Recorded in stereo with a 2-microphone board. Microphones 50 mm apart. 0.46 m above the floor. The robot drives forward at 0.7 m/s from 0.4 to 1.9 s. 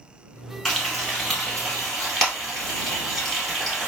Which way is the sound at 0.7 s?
5° left (ahead or behind).